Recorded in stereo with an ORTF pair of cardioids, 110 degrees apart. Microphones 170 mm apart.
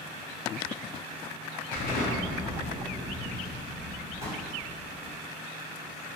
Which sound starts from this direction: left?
A pop, at 4.2 s.